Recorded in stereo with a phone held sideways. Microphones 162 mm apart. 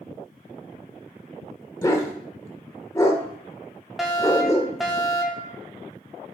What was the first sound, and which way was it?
A dog barking, 20° left (ahead or behind).